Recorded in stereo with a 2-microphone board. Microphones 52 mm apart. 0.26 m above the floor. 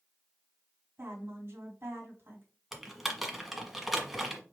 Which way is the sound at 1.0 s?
50° right (ahead or behind).